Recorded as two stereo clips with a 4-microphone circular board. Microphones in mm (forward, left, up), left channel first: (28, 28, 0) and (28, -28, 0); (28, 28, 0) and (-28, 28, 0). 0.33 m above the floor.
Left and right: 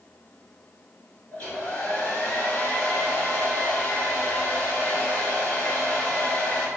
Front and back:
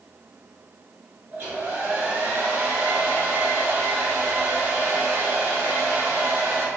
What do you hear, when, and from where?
1.3 s a hair dryer: 145° left, 1.2 m